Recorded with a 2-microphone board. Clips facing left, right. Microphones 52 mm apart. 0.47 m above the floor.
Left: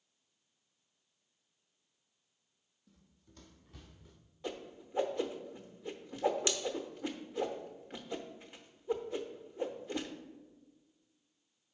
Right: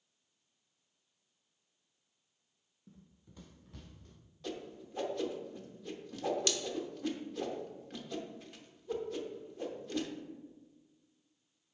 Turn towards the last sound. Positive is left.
turn(degrees=20)  # may be behind; listen again after turning